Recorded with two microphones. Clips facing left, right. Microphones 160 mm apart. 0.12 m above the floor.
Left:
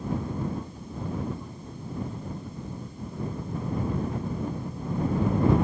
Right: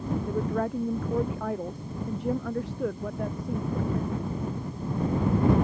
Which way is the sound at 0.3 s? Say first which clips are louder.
Right 5 dB; 85° right.